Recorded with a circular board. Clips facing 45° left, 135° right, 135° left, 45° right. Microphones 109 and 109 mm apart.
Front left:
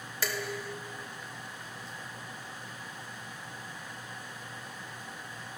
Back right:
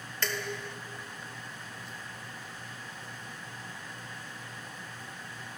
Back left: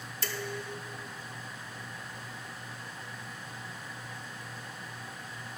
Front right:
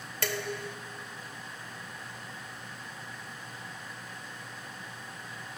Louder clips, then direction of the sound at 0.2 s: Even, front right 3 dB; 40° right.